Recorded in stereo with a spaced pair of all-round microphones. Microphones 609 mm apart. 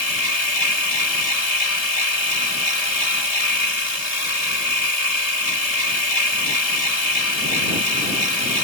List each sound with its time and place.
0.0 s a machine running: 80° left